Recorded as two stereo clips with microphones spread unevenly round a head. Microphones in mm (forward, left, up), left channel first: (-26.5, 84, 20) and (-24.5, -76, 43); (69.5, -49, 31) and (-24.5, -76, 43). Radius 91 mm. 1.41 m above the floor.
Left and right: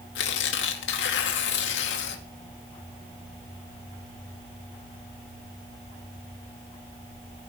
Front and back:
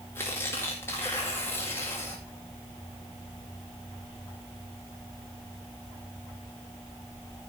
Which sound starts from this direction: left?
Tearing paper, at 0.1 s.